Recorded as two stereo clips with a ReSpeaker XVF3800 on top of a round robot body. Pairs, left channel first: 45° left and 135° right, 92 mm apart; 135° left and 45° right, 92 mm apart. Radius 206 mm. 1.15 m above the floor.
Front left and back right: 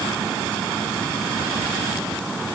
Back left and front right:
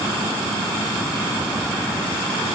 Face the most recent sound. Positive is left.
No sound to turn to.